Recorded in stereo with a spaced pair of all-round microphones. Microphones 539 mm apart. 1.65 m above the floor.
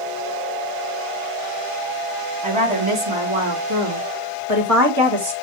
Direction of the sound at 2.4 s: 65° right (ahead or behind).